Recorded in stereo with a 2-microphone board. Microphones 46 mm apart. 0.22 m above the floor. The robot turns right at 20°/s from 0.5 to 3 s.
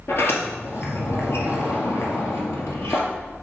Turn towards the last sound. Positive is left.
turn(degrees=110)